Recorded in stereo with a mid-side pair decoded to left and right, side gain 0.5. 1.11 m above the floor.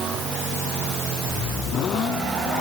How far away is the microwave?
I don't hear a microwave.